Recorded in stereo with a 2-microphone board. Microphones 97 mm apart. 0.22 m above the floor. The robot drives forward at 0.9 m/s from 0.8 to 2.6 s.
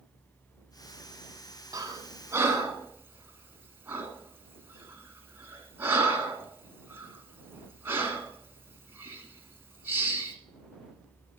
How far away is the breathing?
About 0.9 m.